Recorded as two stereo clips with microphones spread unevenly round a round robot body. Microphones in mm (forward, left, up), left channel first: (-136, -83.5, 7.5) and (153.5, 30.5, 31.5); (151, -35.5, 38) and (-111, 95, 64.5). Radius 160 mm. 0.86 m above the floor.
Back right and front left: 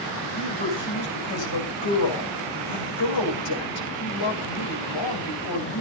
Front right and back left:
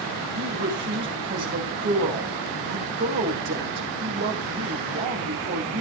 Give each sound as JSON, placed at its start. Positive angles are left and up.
{"t": 0.3, "sound": "a woman speaking", "azimuth_deg": -150, "distance_m": 6.0}